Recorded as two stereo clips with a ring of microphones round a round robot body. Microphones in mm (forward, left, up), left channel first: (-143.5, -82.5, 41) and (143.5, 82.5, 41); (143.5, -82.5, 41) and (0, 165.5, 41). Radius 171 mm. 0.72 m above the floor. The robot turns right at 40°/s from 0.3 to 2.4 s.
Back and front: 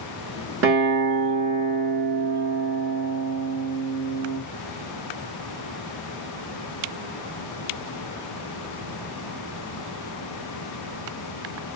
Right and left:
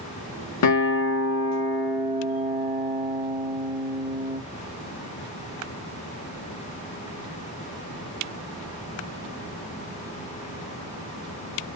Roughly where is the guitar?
Ahead right.